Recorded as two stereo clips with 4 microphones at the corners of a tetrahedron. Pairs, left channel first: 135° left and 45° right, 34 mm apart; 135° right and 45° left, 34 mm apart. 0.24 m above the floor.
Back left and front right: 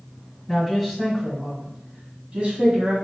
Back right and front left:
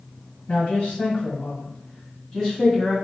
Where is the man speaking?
140° right, 1.6 m; by 2.9 s 70° right, 1.8 m.